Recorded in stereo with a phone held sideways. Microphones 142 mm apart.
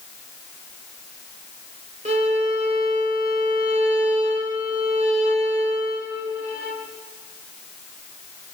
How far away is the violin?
About 1.4 m.